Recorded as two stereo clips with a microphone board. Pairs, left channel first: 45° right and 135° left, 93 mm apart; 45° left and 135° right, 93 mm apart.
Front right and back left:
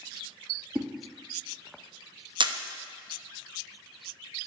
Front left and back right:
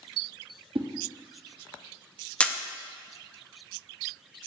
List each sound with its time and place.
0.8 s a whoosh: 145° right, 0.8 m
2.4 s a camera shutter: 120° left, 0.6 m